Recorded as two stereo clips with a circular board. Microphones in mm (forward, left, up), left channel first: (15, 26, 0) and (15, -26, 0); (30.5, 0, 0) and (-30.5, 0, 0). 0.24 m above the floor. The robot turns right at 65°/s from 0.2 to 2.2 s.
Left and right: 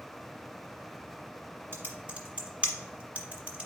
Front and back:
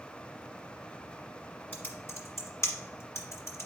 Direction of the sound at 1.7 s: 60° right.